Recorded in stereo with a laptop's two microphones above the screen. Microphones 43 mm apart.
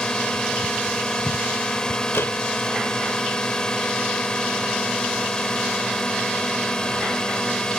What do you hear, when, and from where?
0.0 s a drone: 20° left (ahead or behind)
2.1 s a door slam: 75° left (ahead or behind)